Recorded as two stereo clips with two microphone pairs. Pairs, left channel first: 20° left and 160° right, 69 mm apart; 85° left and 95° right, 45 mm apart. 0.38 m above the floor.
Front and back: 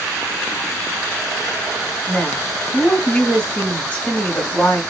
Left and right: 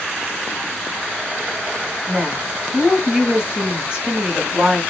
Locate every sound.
2.1 s a woman speaking: 35° right, 1.0 m